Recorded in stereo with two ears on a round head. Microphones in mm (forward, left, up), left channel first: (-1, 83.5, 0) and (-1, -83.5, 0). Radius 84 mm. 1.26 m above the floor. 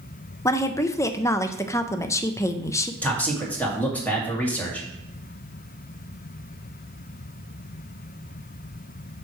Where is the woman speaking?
15° left (ahead or behind), 0.6 m.